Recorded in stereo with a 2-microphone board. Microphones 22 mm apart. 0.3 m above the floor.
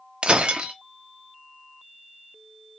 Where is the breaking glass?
50° right (ahead or behind), 0.7 m.